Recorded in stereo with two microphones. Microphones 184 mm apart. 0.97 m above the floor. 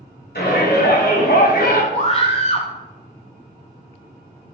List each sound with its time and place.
0.3 s a shout: 65° left (ahead or behind), 2.5 m; by 1.8 s 55° left (ahead or behind), 1.5 m
1.9 s a scream: 35° left (ahead or behind), 1.5 m